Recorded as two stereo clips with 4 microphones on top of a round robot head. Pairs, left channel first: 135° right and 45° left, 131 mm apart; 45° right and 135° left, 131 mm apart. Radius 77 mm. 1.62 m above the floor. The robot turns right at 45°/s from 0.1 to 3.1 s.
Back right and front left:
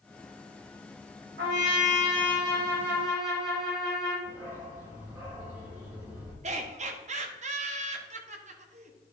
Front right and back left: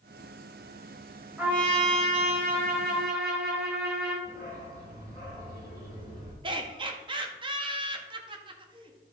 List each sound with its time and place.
1.4 s a trumpet: 55° left, 3 m; by 4.2 s 130° left, 3 m
4.2 s a dog barking: 115° left, 4 m
6.4 s laughter: 80° left, 1.5 m